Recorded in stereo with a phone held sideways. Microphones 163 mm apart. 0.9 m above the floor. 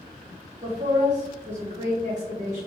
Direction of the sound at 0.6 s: 50° right (ahead or behind).